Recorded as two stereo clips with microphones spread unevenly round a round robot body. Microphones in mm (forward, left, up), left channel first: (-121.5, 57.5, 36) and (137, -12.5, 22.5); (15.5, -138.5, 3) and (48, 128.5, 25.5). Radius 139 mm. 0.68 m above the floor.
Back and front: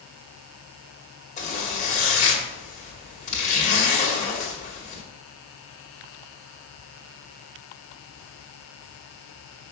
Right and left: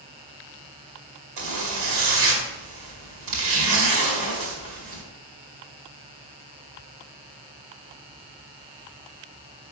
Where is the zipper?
100° left, 2.0 m.